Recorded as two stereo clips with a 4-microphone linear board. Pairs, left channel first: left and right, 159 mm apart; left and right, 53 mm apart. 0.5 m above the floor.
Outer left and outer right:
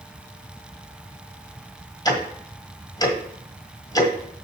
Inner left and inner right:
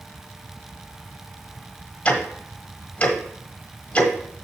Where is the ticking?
25° left (ahead or behind), 1.7 m.